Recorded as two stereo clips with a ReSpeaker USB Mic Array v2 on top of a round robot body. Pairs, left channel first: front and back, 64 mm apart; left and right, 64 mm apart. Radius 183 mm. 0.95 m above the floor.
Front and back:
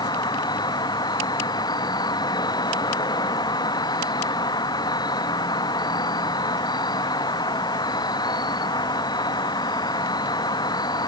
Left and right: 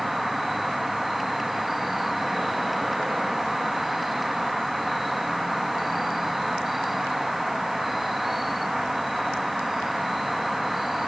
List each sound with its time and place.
0.0 s an insect: straight ahead